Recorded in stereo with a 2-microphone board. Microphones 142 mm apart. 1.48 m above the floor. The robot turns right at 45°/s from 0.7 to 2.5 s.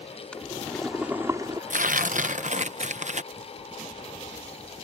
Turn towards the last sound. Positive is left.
turn(degrees=-60)  # may be behind; listen again after turning